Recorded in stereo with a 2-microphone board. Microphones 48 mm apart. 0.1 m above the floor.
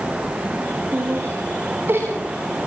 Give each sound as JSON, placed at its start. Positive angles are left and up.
{"t": 0.9, "sound": "laughter", "side_deg": -50, "distance_m": 8.0}